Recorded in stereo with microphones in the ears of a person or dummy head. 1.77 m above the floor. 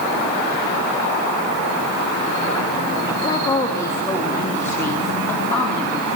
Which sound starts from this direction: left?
A woman speaking, at 3.1 s.